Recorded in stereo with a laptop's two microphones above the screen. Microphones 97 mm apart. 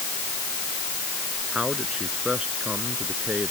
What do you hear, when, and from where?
1.5 s a man speaking: 10° right (ahead or behind)